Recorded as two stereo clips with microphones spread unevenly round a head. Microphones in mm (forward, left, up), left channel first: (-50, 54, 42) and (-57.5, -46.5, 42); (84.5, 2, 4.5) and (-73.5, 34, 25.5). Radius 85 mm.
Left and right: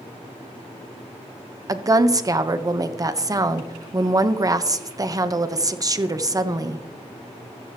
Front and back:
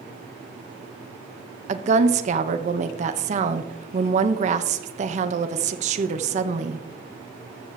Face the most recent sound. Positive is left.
turn(degrees=-145)